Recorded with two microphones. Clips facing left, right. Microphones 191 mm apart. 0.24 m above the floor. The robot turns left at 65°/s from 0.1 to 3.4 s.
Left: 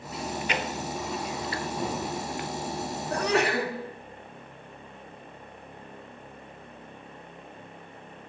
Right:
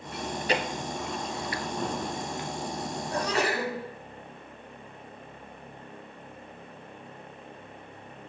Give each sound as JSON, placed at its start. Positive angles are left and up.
{"t": 0.1, "sound": "chewing", "side_deg": -65, "distance_m": 0.9}
{"t": 3.1, "sound": "a sneeze", "side_deg": 60, "distance_m": 2.5}